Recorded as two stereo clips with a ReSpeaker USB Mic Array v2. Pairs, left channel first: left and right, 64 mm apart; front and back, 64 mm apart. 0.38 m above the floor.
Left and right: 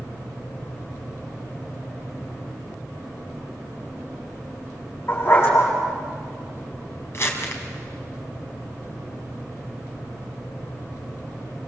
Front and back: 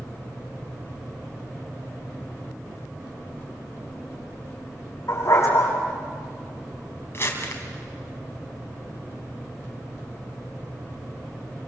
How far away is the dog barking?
About 7.5 m.